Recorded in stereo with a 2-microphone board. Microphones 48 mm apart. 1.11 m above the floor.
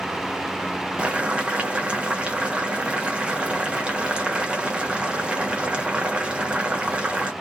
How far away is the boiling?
About 0.8 m.